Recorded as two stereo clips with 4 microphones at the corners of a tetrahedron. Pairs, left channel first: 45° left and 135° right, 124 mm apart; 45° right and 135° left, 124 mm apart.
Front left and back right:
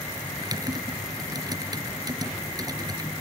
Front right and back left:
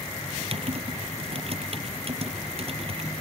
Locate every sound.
0.4 s typing on a keyboard: 170° left